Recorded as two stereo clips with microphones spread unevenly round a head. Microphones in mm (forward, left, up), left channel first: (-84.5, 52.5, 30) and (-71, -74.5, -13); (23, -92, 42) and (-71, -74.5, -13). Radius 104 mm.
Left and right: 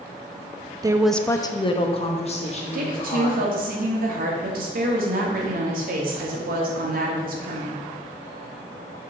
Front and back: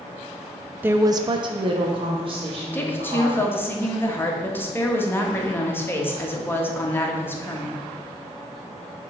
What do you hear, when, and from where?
0.8 s a woman speaking: 135° right, 0.5 m; by 3.5 s 130° left, 2.5 m
2.7 s a woman speaking: 80° right, 1.4 m